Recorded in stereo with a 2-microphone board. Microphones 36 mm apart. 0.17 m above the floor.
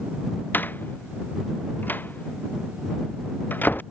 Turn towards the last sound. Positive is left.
turn(degrees=60)  # may be behind; listen again after turning